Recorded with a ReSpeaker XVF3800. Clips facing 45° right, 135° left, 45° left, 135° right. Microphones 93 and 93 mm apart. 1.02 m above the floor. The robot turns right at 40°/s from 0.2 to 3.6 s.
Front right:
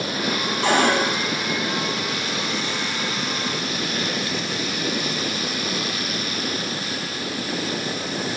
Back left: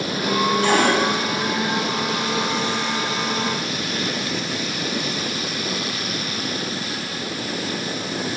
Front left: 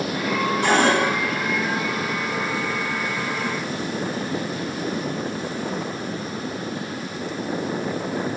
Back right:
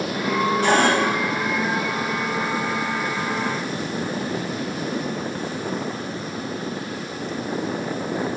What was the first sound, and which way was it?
A cupboard door, 25° right.